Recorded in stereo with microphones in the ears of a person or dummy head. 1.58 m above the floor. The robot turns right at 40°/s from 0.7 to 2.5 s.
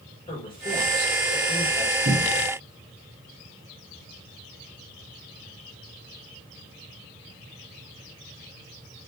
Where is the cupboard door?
40° right (ahead or behind), 0.7 m; by 2.5 s 50° right (ahead or behind), 0.7 m.